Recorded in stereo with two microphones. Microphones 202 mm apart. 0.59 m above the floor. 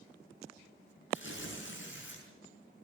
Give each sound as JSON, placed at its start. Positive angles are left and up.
{"t": 1.1, "sound": "tearing paper", "side_deg": 65, "distance_m": 6.5}